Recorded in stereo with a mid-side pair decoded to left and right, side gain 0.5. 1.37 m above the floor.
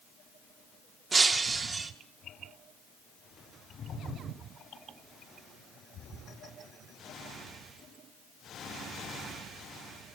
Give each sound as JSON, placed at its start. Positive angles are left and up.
{"t": 1.1, "sound": "breaking glass", "azimuth_deg": -35, "distance_m": 1.9}